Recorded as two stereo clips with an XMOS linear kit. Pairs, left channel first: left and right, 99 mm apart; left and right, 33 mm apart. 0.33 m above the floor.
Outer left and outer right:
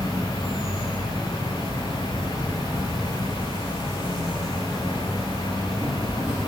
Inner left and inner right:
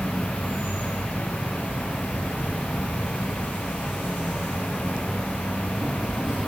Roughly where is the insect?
Right.